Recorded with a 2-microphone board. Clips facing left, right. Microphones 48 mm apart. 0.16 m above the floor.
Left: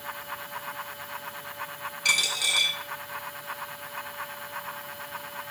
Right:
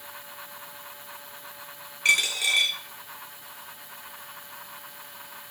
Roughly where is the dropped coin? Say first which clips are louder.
Right 3 dB; right.